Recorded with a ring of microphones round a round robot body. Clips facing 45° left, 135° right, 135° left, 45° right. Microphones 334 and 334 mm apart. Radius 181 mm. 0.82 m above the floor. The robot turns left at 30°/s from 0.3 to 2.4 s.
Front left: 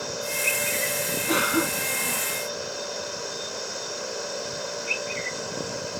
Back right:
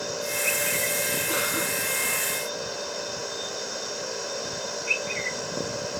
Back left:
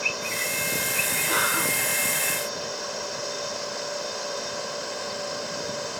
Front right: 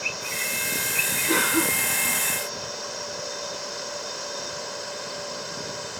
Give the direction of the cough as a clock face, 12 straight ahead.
11 o'clock.